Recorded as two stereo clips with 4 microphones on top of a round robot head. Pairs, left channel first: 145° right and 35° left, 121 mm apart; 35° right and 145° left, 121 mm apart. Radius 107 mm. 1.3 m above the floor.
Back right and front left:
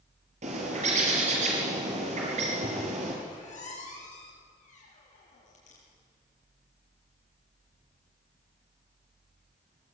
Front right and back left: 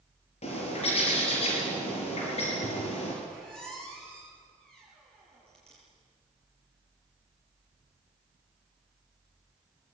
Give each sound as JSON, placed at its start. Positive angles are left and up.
{"t": 0.4, "sound": "a bird", "azimuth_deg": 5, "distance_m": 5.0}
{"t": 3.2, "sound": "a squeak", "azimuth_deg": -120, "distance_m": 8.5}